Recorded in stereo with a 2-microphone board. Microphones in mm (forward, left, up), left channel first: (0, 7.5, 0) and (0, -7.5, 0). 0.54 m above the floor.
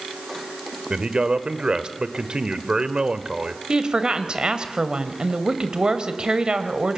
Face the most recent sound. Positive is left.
turn(degrees=-55)  # may be behind; listen again after turning